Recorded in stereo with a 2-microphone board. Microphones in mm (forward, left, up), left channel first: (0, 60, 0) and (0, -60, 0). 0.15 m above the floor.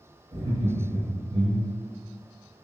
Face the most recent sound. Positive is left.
turn(degrees=-55)  # may be behind; listen again after turning